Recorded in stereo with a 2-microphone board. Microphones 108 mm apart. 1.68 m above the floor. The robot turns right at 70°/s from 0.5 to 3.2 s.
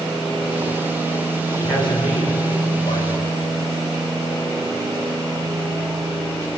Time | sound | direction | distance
1.6 | a man speaking | 35° left | 8 m